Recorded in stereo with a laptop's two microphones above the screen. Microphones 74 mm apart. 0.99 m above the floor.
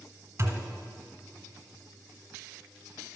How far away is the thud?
About 1.4 m.